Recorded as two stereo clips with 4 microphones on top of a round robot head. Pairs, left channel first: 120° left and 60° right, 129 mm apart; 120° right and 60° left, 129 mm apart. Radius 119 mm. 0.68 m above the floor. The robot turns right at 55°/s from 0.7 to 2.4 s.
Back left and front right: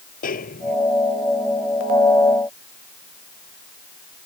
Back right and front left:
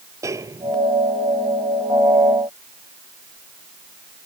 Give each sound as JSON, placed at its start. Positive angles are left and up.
{"t": 0.2, "sound": "a snare drum", "azimuth_deg": 125}